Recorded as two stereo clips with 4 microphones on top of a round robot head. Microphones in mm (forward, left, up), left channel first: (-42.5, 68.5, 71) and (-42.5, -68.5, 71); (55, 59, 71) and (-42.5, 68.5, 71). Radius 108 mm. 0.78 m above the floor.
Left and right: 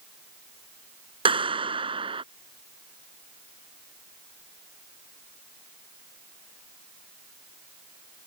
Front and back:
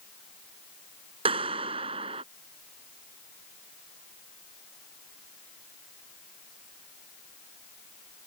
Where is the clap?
140° right.